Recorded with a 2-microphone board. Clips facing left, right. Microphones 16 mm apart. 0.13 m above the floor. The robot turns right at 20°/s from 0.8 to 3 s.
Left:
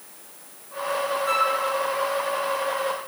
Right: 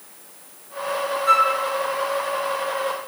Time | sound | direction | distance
1.3 | a flute | 20° right (ahead or behind) | 1.3 m